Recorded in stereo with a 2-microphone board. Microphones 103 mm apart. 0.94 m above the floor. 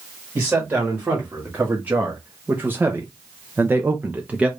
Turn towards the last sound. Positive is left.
turn(degrees=-10)  # may be behind; listen again after turning